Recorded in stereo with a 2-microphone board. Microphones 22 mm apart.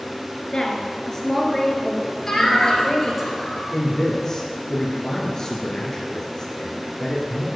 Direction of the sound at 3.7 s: 25° left (ahead or behind).